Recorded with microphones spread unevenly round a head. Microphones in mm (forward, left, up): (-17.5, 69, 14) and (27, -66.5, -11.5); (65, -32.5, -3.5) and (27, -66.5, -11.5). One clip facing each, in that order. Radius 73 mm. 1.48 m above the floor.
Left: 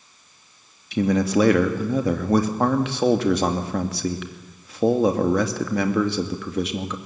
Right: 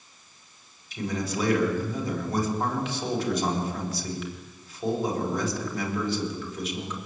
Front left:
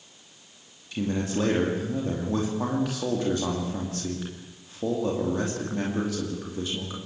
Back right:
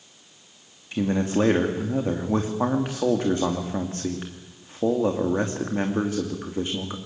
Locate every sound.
0.9 s a man speaking: 145° left, 2.5 m